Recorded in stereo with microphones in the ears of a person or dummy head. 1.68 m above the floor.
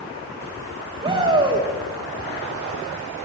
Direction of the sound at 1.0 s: 25° right (ahead or behind).